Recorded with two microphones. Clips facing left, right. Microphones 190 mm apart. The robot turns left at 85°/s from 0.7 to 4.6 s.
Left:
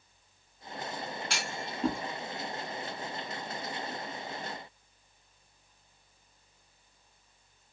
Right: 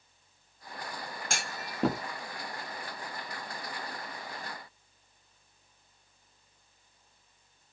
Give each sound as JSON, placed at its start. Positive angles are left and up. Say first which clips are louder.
{"t": 1.3, "sound": "a clunk", "louder": "left 2 dB", "side_deg": -45, "distance_m": 1.2}